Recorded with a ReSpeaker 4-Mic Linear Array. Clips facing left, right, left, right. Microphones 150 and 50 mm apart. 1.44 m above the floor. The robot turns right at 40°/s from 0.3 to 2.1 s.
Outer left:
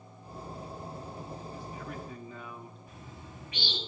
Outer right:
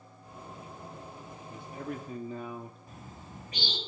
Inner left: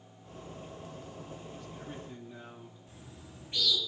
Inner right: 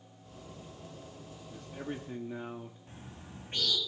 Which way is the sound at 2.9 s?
40° right (ahead or behind).